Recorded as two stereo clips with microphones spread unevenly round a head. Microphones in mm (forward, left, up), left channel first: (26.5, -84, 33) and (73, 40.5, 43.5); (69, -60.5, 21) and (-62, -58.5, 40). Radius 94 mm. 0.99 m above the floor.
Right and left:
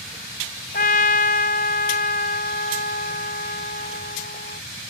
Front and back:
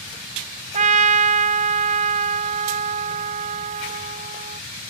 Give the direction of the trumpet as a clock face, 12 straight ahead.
5 o'clock.